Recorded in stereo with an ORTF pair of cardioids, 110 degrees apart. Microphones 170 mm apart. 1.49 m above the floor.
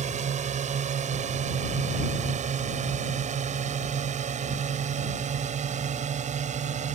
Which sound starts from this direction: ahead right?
A drone, at 0.0 s.